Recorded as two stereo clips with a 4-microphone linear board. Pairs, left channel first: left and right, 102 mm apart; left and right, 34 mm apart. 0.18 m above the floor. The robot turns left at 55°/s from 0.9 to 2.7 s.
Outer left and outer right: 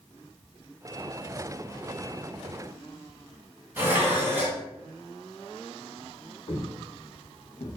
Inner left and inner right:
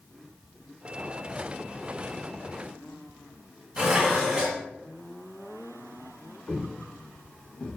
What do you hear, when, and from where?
3.8 s dishes clattering: 20° right (ahead or behind), 0.9 m
6.5 s footsteps: 65° left (ahead or behind), 1.7 m; by 7.8 s 80° left, 0.9 m